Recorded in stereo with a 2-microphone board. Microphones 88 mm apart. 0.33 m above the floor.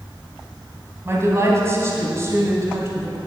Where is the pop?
I don't hear a pop.